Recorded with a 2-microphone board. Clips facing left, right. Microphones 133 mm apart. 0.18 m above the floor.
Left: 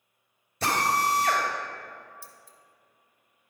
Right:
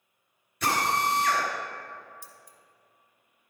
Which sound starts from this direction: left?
A drill, at 0.6 s.